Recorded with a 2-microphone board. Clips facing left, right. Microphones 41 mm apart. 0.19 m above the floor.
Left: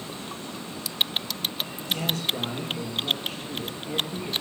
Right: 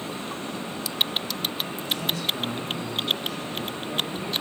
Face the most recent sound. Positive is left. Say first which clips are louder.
# left 1 dB
turn(degrees=50)  # may be behind; listen again after turning